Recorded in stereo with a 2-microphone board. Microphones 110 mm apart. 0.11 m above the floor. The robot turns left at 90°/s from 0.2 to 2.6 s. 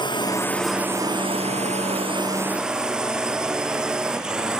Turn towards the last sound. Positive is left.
turn(degrees=-175)